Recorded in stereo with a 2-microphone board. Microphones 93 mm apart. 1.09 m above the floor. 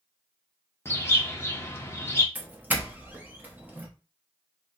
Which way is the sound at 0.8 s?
30° left (ahead or behind).